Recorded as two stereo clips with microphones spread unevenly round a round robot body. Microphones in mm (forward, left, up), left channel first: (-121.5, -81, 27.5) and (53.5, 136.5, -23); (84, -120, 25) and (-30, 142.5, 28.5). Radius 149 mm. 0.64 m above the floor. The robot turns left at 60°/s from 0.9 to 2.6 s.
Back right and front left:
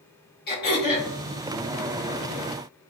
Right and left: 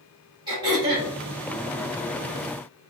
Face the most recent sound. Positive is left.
turn(degrees=80)